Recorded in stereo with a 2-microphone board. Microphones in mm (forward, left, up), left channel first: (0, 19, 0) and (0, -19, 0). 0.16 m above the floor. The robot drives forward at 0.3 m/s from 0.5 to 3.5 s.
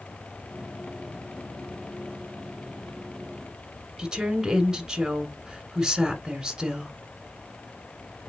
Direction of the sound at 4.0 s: 20° right (ahead or behind).